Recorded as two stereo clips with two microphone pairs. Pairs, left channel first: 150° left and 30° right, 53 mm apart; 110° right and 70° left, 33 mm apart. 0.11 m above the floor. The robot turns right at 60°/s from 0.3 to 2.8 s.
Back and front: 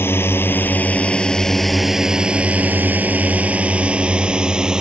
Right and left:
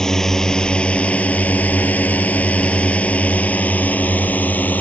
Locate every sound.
0.0 s a drone: straight behind; by 4.8 s 105° right